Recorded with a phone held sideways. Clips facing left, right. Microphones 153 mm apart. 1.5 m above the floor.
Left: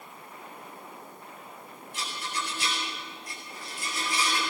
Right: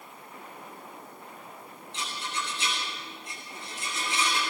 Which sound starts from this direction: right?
A rattle, at 1.9 s.